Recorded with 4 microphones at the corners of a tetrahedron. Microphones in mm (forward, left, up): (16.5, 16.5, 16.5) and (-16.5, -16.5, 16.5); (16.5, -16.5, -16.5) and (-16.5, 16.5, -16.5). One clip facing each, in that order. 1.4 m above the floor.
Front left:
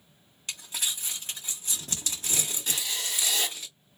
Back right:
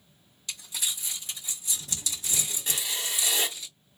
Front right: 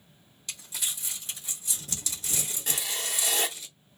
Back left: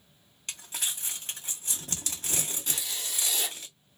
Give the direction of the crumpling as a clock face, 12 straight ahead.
9 o'clock.